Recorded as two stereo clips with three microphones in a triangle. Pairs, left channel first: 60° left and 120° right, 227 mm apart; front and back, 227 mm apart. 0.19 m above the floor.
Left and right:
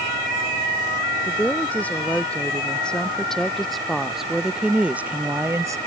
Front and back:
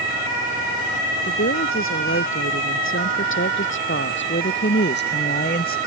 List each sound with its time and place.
1.2 s a woman speaking: 25° right; by 5.8 s 45° right